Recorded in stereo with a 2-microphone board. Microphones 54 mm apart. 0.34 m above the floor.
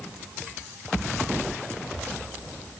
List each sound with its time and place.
Only background noise.